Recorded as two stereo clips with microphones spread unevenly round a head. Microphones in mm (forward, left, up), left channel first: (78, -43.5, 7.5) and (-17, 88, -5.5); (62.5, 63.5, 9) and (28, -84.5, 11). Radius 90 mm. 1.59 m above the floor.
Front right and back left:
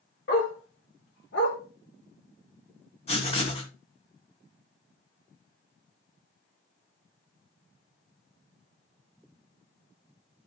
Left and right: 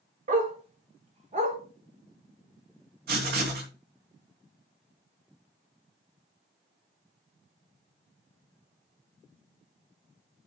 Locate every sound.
0.3 s a dog barking: 75° right, 2.5 m; by 1.6 s 65° right, 3.5 m
3.1 s writing: 105° right, 3 m